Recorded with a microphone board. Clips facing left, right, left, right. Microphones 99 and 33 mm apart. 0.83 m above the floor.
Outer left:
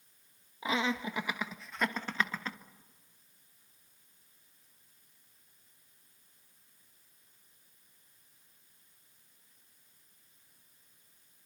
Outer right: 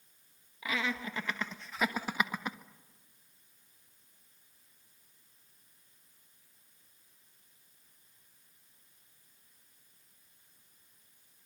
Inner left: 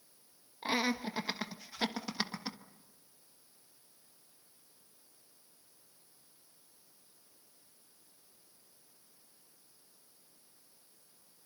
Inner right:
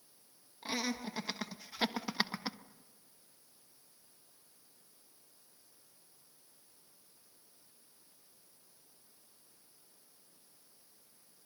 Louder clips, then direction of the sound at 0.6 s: Outer left 3 dB, inner left 5 dB; 25° left (ahead or behind).